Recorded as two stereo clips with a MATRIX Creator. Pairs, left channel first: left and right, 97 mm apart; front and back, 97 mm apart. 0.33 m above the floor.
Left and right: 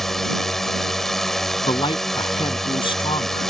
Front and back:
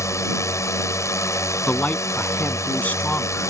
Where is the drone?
5° left.